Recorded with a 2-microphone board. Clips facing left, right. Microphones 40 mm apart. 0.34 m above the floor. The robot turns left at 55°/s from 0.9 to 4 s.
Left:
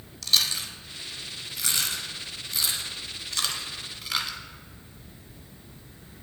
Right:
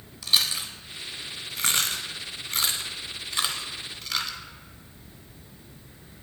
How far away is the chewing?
About 0.6 m.